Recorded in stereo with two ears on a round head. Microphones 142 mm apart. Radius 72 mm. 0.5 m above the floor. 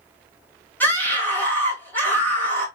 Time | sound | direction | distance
0.8 | a scream | 10° left (ahead or behind) | 2.0 m